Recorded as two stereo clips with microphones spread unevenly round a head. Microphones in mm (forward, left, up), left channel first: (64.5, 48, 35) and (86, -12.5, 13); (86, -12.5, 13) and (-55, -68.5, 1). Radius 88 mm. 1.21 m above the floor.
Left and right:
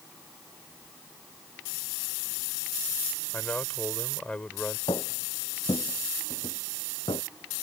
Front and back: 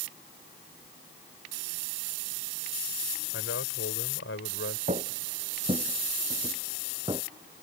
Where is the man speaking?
40° left.